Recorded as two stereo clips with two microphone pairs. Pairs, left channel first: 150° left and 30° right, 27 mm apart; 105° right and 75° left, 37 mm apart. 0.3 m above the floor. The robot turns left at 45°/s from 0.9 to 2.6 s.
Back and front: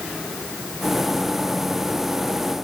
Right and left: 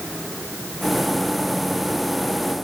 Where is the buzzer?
I don't hear a buzzer.